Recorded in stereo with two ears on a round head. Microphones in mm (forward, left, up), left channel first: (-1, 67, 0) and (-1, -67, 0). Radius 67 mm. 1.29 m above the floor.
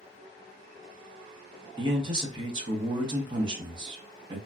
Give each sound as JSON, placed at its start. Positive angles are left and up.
{"t": 1.8, "sound": "a man speaking", "side_deg": -30, "distance_m": 0.9}